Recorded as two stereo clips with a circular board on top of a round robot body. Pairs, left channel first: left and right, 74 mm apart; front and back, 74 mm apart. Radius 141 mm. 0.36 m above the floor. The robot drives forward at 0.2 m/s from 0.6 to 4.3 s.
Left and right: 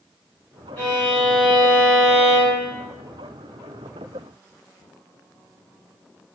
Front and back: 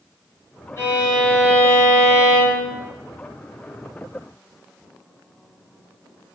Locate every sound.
0.8 s a violin: 30° left, 1.8 m; by 2.7 s 45° left, 1.6 m